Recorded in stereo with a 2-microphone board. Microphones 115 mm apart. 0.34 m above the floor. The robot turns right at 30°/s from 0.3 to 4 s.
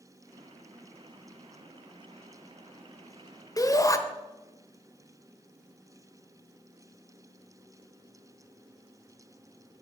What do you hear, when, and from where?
3.6 s a shout: 30° left (ahead or behind), 0.9 m